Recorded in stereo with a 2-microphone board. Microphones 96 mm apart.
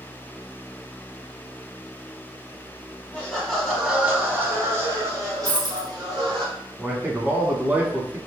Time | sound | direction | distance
3.1 | laughter | 15° left (ahead or behind) | 1.2 m
5.5 | a dropped coin | 65° right (ahead or behind) | 1.3 m
6.8 | a man speaking | 15° right (ahead or behind) | 1.2 m